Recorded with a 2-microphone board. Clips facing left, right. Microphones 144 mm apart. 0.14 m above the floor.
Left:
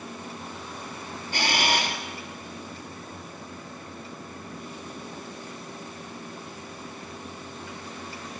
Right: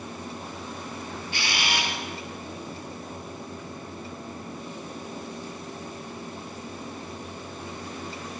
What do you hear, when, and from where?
1.3 s a camera shutter: 45° left (ahead or behind), 2.5 m